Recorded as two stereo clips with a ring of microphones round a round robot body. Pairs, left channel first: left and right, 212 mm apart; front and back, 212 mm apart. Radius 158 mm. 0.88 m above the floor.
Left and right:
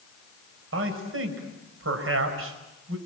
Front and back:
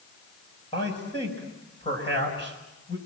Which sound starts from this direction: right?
A man speaking, at 0.7 s.